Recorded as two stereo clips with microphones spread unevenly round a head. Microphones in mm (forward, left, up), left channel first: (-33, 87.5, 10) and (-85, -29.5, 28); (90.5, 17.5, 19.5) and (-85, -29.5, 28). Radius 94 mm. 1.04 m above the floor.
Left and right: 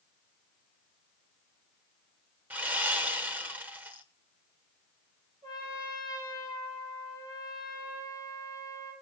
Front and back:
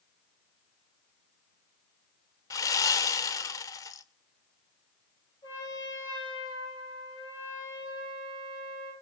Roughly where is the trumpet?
Ahead right.